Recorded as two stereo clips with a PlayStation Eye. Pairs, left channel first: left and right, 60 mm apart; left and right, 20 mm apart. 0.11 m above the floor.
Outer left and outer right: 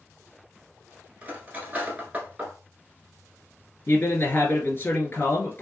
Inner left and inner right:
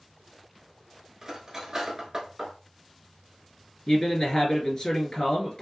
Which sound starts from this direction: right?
Cutlery clinking, at 1.2 s.